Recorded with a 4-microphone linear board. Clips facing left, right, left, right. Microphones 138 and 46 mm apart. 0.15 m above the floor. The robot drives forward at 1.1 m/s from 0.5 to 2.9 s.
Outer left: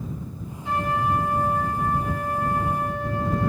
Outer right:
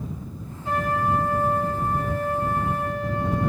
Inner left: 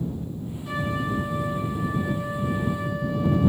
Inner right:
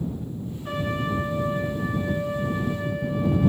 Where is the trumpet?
40° right (ahead or behind), 1.8 m; by 3.5 s 20° right (ahead or behind), 3 m.